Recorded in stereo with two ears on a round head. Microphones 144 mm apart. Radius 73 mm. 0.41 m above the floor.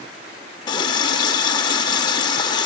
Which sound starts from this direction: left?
A running tap, at 0.7 s.